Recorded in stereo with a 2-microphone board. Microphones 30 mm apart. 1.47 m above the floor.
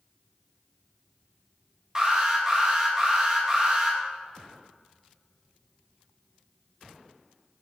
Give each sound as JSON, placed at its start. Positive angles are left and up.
{"t": 1.9, "sound": "an alarm", "side_deg": -20, "distance_m": 3.0}